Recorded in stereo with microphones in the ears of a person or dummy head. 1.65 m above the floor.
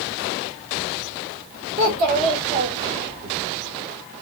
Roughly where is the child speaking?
Right.